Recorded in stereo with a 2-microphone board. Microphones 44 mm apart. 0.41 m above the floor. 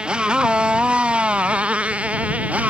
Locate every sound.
0.0 s a motorcycle: 25° right (ahead or behind); by 2.7 s 35° right (ahead or behind)